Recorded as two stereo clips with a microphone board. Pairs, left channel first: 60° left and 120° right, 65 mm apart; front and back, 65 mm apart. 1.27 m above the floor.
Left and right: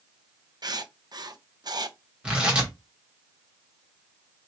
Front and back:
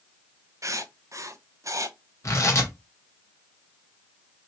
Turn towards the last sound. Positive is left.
turn(degrees=-45)